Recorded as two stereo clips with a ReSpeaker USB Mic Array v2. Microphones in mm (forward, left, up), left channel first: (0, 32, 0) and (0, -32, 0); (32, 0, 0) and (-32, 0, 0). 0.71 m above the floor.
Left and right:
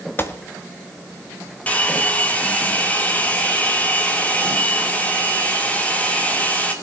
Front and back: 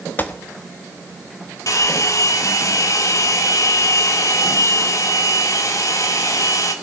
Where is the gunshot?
50° left, 1.1 m.